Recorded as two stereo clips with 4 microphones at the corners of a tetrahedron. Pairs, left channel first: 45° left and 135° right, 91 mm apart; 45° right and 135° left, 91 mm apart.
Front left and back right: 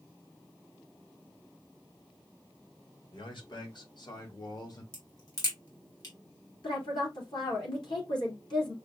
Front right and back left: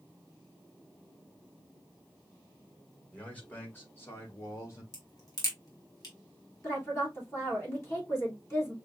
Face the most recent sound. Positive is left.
turn(degrees=15)